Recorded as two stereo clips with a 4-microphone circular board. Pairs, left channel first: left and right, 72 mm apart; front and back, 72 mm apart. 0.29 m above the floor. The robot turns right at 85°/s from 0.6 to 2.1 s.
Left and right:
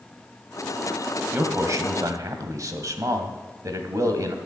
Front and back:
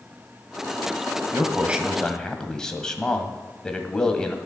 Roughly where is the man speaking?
Behind right.